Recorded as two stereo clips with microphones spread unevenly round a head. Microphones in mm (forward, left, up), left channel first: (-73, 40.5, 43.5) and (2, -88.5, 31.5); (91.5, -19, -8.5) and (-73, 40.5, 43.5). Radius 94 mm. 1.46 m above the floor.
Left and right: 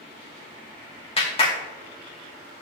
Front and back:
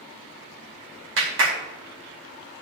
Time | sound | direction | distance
1.2 | a clap | 170° left | 2.5 m